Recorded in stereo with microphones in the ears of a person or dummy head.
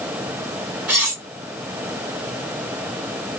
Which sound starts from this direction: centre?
Cutlery clinking, at 0.9 s.